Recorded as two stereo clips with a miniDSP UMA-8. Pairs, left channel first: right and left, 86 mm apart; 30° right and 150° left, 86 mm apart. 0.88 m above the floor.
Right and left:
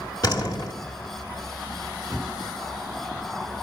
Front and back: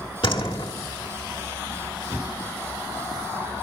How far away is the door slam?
About 1.4 m.